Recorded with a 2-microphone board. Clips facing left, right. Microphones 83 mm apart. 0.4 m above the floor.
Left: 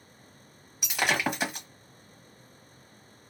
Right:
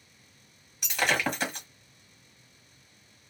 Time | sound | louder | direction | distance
0.8 | breaking glass | even | 10° left (ahead or behind) | 1.3 m